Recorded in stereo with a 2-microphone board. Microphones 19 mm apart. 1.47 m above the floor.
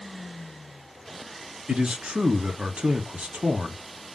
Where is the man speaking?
75° right (ahead or behind), 1.1 m.